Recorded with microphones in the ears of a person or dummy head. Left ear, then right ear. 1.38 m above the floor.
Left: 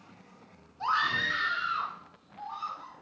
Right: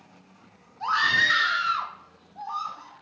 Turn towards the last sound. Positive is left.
turn(degrees=-55)  # may be behind; listen again after turning